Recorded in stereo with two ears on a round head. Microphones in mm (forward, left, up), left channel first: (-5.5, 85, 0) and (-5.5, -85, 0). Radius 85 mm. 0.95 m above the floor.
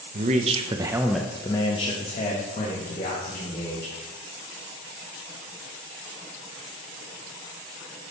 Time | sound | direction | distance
0.1 | a man speaking | 40° right (ahead or behind) | 0.7 m